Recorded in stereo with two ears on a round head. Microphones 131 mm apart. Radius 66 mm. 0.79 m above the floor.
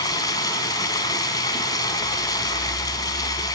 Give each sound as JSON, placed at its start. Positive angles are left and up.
{"t": 0.0, "sound": "running water", "side_deg": 25, "distance_m": 2.5}